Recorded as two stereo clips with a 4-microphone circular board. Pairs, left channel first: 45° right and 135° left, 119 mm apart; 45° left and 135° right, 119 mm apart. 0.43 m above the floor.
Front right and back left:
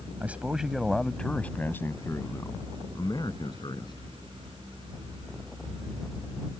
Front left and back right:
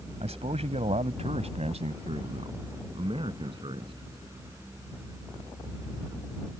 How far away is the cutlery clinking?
I don't hear cutlery clinking.